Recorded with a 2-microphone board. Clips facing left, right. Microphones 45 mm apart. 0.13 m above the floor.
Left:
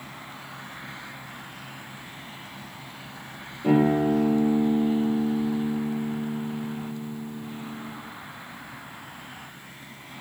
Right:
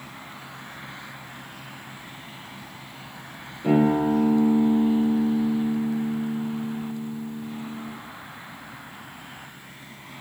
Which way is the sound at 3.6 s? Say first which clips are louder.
Right 1 dB; centre (ahead or behind).